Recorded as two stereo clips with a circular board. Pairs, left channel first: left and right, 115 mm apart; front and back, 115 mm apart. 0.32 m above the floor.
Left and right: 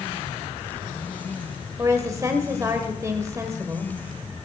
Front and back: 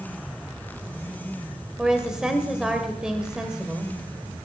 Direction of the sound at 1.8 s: 105° right.